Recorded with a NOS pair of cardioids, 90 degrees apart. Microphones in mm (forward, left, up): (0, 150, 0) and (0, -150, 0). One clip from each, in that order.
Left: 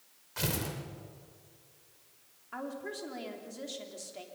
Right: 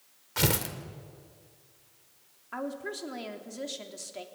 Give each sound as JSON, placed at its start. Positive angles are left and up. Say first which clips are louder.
{"t": 0.4, "sound": "tearing paper", "louder": "right 6 dB", "azimuth_deg": -50, "distance_m": 2.5}
{"t": 2.5, "sound": "a woman speaking", "louder": "right 4 dB", "azimuth_deg": -25, "distance_m": 3.0}